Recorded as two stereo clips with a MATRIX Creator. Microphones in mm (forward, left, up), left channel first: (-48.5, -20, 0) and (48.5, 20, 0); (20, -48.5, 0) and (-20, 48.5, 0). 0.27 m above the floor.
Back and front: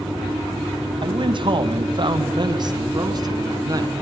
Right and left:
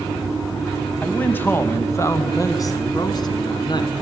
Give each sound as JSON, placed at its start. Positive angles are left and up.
{"t": 1.0, "sound": "a man speaking", "azimuth_deg": 5, "distance_m": 1.7}